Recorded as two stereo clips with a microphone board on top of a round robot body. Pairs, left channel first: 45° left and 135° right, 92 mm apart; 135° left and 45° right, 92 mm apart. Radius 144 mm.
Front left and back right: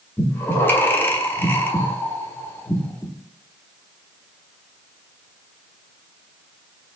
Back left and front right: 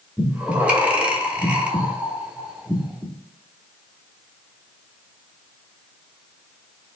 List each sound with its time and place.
0.2 s breathing: 15° left, 1.0 m